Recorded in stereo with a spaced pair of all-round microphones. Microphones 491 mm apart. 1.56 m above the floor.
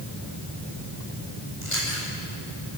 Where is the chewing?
85° left, 7.5 m.